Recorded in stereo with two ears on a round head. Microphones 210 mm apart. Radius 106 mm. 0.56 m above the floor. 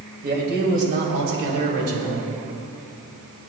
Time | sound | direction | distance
0.2 | a man speaking | 40° right (ahead or behind) | 2.5 m